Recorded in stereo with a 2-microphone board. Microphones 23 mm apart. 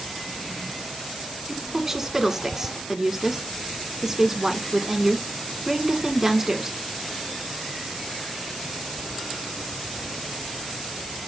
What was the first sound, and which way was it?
A woman speaking, 15° right (ahead or behind).